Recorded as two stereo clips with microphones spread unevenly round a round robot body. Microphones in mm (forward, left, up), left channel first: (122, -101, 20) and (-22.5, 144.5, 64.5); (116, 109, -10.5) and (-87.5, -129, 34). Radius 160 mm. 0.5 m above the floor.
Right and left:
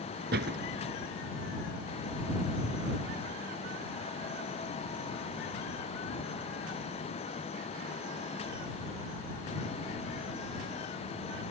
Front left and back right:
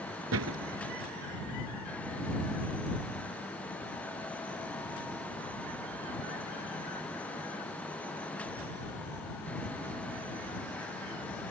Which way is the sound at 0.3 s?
Straight behind.